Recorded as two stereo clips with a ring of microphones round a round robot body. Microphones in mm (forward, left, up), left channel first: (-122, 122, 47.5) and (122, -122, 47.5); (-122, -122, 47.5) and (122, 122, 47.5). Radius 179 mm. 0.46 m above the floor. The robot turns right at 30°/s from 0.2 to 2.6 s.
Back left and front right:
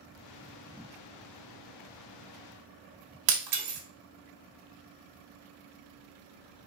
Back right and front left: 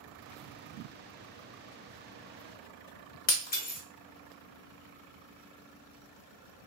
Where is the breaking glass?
70° right, 1.0 m.